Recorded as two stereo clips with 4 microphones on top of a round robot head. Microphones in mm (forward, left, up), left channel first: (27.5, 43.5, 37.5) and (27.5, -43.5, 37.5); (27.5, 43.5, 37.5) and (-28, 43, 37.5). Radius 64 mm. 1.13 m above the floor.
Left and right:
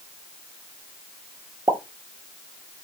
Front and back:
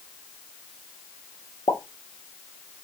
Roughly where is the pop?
Ahead right.